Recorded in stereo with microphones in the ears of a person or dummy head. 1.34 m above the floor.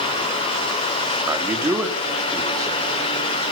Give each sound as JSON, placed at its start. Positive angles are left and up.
{"t": 1.3, "sound": "a man speaking", "side_deg": -10, "distance_m": 3.0}